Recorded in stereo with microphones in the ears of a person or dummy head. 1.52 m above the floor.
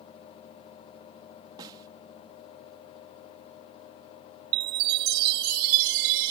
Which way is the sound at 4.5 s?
50° right (ahead or behind).